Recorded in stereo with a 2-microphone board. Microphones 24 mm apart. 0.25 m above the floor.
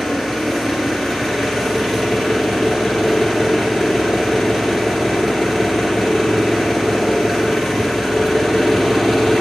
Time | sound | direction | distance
0.0 | an engine running | 5° right (ahead or behind) | 2.5 m